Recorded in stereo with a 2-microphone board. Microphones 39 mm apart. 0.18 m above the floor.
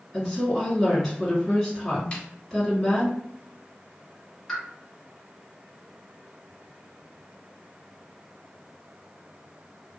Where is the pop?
5° left (ahead or behind), 1.8 m.